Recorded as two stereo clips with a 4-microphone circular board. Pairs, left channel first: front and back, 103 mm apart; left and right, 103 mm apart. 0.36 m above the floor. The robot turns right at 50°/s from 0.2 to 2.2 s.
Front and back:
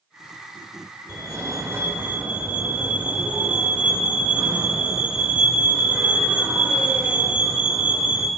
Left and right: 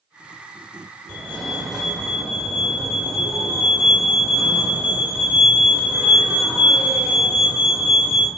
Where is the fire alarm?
160° left, 1.8 m; by 8.3 s 145° right, 1.8 m.